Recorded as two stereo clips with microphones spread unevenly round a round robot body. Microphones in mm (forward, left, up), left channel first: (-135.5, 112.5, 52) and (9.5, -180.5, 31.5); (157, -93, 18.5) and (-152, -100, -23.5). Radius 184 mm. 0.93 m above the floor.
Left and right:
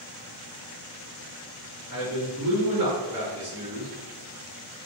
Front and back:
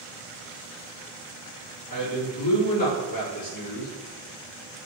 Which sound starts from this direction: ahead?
A man speaking, at 1.9 s.